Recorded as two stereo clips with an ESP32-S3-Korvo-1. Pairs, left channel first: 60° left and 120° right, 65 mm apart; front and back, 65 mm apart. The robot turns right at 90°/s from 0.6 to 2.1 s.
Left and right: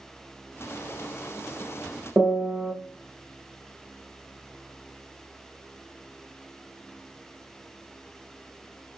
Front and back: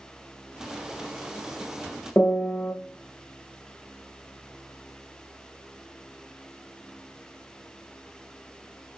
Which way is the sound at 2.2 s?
55° right.